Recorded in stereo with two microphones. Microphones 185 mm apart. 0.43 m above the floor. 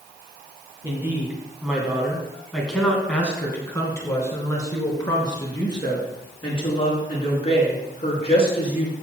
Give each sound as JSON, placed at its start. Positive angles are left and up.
{"t": 0.8, "sound": "a woman speaking", "side_deg": -15, "distance_m": 3.0}